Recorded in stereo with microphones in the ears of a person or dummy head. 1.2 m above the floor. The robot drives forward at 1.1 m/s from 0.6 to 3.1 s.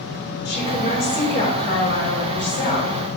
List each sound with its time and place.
0.5 s a woman speaking: 50° left (ahead or behind), 4 m; by 2.9 s 30° left (ahead or behind), 5.5 m